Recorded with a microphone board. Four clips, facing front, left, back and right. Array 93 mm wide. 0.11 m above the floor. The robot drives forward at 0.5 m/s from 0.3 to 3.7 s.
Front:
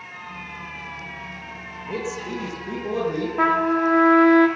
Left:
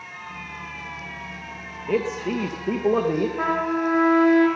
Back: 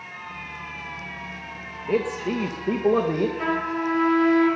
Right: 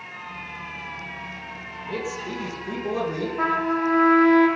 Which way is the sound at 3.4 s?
5° right.